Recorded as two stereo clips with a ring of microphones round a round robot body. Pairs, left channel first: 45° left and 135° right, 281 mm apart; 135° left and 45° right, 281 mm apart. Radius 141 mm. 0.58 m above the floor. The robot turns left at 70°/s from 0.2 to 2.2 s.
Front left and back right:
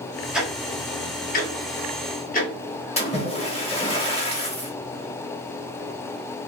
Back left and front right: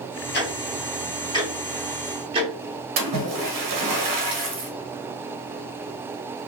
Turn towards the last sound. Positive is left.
turn(degrees=-25)